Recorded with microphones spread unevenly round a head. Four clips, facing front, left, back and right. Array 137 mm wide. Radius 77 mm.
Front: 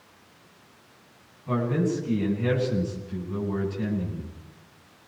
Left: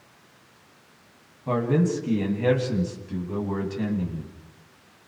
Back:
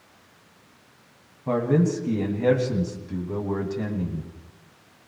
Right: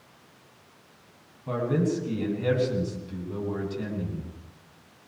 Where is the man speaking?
145° left, 9 m.